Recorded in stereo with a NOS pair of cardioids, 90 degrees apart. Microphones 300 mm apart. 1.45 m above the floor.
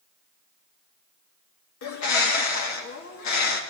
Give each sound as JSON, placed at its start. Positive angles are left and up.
{"t": 1.8, "sound": "a bird", "azimuth_deg": 70, "distance_m": 1.8}